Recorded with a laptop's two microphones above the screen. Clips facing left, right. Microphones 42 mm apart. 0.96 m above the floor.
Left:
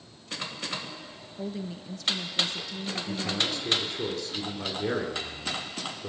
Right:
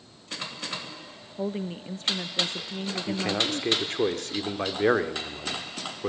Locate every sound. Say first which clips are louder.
1.4 s a woman speaking: right 5 dB; 35° right (ahead or behind), 0.7 m
3.1 s a man speaking: right 3 dB; 55° right (ahead or behind), 2.5 m